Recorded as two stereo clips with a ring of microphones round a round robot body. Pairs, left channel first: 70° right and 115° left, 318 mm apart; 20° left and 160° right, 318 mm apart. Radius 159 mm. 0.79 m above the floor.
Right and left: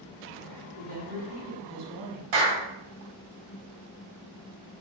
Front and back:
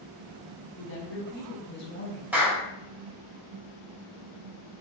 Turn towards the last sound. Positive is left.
turn(degrees=115)